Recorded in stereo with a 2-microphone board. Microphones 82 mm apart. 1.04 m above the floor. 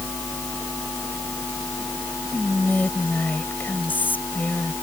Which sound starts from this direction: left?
Whispering, at 2.3 s.